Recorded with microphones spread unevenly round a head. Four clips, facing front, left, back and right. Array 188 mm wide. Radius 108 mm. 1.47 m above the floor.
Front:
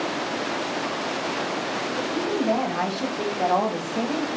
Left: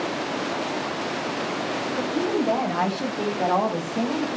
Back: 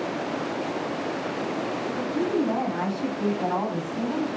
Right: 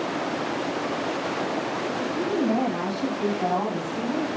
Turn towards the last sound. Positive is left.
turn(degrees=30)